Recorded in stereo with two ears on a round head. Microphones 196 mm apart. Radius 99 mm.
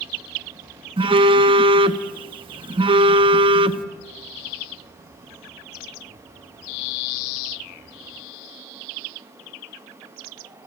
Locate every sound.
1.0 s a phone buzzing: 25° right (ahead or behind), 0.6 m